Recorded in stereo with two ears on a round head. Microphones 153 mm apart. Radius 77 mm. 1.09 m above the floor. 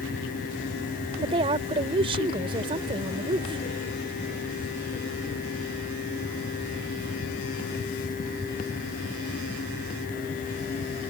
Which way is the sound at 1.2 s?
35° right (ahead or behind).